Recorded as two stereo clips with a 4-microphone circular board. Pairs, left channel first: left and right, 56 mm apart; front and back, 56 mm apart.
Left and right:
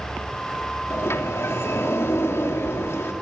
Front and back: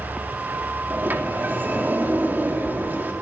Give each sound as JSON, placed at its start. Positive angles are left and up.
{"t": 0.9, "sound": "a sliding door", "azimuth_deg": 125, "distance_m": 3.0}